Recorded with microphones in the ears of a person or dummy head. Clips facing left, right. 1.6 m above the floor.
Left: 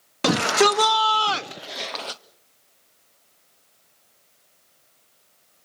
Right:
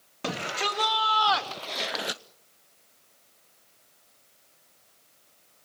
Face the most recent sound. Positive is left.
turn(degrees=-20)  # may be behind; listen again after turning